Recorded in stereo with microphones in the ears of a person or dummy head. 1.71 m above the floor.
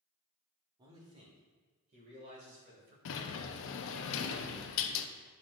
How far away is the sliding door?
About 0.6 m.